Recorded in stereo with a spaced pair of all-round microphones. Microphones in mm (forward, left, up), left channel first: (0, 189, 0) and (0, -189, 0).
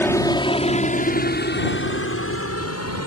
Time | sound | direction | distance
0.0 | a helicopter | 5° left (ahead or behind) | ?